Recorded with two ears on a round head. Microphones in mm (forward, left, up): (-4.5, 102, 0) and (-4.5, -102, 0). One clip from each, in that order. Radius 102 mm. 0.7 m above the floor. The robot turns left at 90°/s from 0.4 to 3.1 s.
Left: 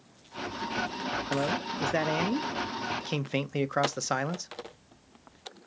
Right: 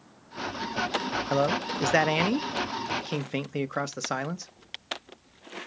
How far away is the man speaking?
About 0.7 m.